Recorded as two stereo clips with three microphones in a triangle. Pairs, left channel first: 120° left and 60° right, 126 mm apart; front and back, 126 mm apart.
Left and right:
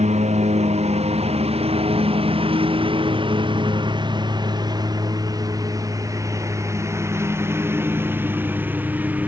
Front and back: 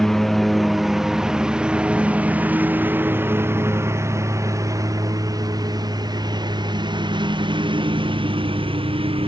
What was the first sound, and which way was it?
A lawn mower, 85° right.